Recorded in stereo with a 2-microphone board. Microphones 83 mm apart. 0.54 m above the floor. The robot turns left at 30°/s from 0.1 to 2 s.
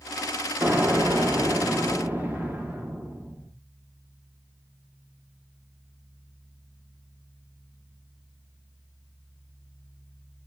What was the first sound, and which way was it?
An explosion, 30° right (ahead or behind).